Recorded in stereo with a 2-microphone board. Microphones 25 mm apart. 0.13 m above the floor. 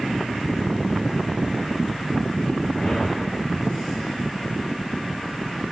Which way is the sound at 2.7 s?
30° left (ahead or behind).